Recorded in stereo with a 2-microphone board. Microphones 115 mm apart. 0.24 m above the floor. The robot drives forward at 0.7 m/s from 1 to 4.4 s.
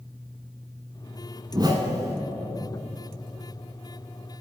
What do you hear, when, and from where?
1.5 s a whoosh: 40° right (ahead or behind), 1.1 m; by 2.2 s 30° right (ahead or behind), 1.4 m